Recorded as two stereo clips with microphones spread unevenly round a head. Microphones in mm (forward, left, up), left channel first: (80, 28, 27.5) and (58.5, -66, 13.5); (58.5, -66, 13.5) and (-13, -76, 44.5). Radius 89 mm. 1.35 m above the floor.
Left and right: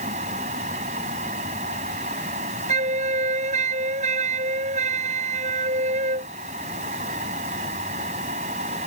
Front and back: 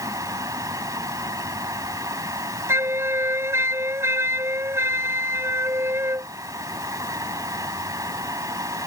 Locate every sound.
0.0 s a fan: 135° right
2.7 s a flute: 120° right